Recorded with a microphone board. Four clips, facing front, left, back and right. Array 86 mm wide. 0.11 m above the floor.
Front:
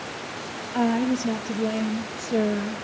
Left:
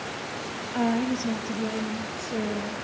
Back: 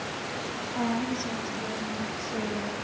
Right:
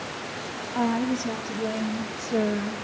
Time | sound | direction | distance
0.7 | a woman speaking | 25° left | 2 m